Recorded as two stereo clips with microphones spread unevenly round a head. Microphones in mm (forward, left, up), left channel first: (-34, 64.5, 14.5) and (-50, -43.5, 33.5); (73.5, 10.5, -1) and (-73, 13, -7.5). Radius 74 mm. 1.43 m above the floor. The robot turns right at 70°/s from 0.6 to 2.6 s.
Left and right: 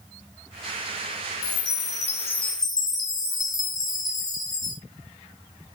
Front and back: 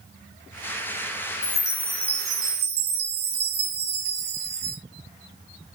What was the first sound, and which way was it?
A chime, 50° left.